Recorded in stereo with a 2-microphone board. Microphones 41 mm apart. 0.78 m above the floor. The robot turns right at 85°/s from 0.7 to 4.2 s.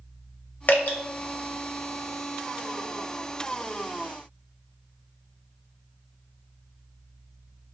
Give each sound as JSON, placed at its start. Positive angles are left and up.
{"t": 0.7, "sound": "dripping", "side_deg": 45, "distance_m": 0.6}